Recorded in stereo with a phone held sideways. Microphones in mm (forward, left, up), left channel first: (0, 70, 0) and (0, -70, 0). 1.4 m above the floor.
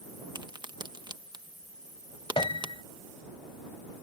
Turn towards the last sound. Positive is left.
turn(degrees=40)  # may be behind; listen again after turning